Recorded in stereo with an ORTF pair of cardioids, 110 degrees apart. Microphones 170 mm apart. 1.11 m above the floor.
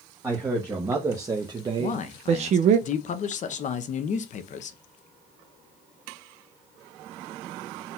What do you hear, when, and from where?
0.2 s a man speaking: 15° right, 1.5 m; by 2.8 s 75° right, 0.5 m
1.8 s a man speaking: 50° left, 0.8 m